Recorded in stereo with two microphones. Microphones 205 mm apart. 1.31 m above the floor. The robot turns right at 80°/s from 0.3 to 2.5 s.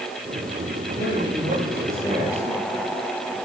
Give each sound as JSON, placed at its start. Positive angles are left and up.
{"t": 1.0, "sound": "a man speaking", "azimuth_deg": 80, "distance_m": 6.5}